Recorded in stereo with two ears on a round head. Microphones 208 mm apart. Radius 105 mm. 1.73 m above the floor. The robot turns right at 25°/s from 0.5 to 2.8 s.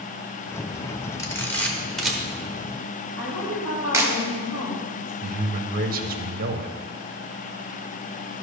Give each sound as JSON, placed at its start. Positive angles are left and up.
{"t": 1.2, "sound": "a camera shutter", "side_deg": 15, "distance_m": 1.2}
{"t": 3.2, "sound": "a woman speaking", "side_deg": 75, "distance_m": 3.0}
{"t": 5.2, "sound": "a man speaking", "side_deg": -40, "distance_m": 0.9}